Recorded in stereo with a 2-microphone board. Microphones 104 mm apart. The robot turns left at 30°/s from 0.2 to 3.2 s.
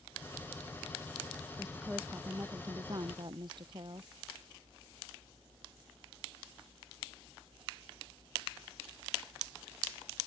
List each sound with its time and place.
1.6 s a woman speaking: straight ahead; by 4.1 s 50° right